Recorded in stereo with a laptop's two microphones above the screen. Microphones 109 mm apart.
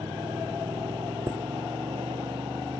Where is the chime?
35° right (ahead or behind).